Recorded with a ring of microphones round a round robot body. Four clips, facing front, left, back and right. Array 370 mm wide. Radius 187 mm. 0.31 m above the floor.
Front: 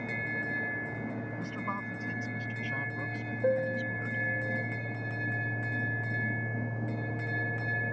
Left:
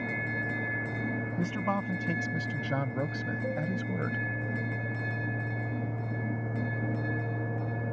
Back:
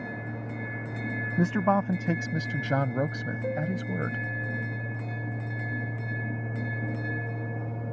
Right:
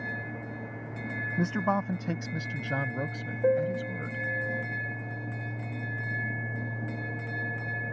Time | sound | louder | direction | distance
1.4 | a man speaking | right 5 dB, back 12 dB | 160° right | ?
3.4 | a piano | right 10 dB, front 4 dB | 75° right | ?